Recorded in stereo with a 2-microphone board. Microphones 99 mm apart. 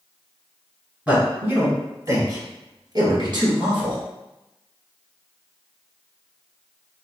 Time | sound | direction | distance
1.1 | a man speaking | 15° right (ahead or behind) | 1.5 m